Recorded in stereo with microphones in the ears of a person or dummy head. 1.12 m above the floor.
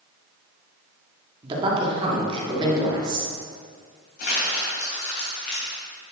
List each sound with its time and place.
1.4 s a man speaking: 30° right (ahead or behind), 2 m; by 3.3 s 25° right (ahead or behind), 3 m
4.2 s crumpling: 55° left (ahead or behind), 3 m